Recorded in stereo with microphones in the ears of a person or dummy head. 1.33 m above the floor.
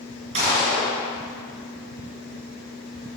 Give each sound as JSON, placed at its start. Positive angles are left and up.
{"t": 0.3, "sound": "a gunshot", "side_deg": -30, "distance_m": 3.5}